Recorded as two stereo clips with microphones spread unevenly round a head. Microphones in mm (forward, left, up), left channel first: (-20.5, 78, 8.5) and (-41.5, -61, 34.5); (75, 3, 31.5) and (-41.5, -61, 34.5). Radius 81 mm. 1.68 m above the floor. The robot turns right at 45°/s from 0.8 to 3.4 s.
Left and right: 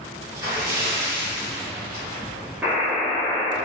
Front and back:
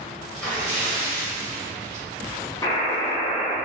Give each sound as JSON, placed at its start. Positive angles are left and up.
{"t": 0.3, "sound": "a splash", "azimuth_deg": -60, "distance_m": 1.5}
{"t": 2.6, "sound": "a buzzer", "azimuth_deg": -30, "distance_m": 0.5}